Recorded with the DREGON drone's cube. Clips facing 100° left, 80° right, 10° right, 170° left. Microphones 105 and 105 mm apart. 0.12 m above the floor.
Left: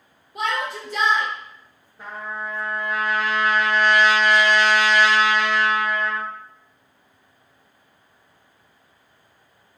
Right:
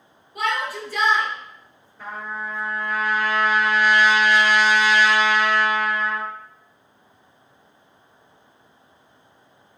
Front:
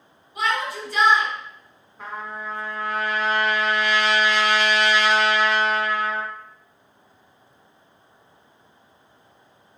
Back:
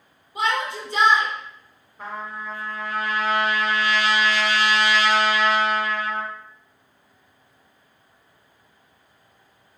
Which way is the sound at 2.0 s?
95° left.